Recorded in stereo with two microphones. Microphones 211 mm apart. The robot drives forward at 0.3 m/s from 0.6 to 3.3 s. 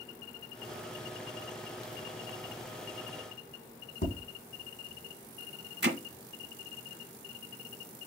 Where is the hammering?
60° right (ahead or behind), 0.8 m.